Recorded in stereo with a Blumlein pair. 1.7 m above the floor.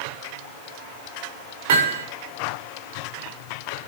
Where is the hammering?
50° right, 6 m.